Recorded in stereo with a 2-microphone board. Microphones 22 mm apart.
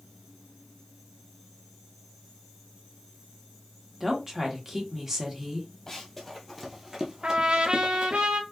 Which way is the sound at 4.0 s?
20° right (ahead or behind).